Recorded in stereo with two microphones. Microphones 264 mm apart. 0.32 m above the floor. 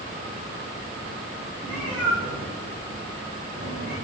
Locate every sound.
1.6 s a cat meowing: 10° left (ahead or behind), 6 m; by 4.0 s centre (ahead or behind), 9.5 m